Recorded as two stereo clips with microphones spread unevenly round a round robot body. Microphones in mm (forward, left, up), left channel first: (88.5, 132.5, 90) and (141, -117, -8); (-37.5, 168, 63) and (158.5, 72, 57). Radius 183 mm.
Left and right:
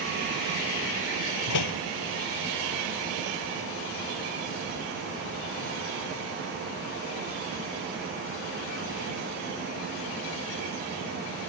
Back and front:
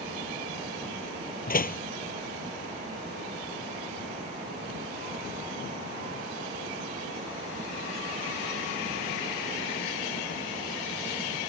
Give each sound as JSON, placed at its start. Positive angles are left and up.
{"t": 1.5, "sound": "a door slam", "azimuth_deg": 105}